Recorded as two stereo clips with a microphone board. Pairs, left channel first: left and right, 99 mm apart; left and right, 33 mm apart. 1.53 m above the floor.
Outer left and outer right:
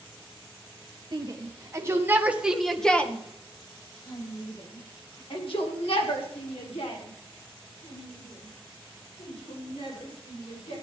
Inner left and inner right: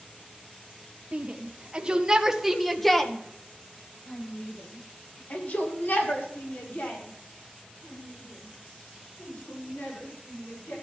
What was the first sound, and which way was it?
A shout, 40° right (ahead or behind).